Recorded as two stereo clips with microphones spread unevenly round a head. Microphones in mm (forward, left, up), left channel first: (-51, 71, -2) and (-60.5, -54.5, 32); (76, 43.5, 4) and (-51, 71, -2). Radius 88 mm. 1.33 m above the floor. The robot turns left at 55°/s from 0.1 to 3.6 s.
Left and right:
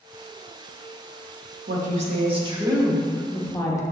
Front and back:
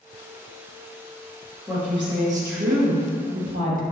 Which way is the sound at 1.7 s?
105° right.